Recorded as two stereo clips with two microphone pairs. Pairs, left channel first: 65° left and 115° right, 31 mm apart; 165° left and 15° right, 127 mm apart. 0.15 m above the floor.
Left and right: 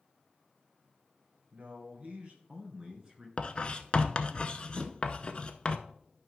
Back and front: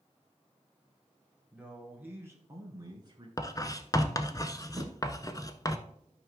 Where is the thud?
80° right, 5 m.